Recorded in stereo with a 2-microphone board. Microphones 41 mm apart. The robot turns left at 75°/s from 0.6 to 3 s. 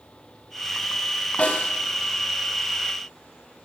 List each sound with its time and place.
1.4 s a snare drum: 40° left (ahead or behind), 2 m; by 1.7 s 50° left (ahead or behind), 2 m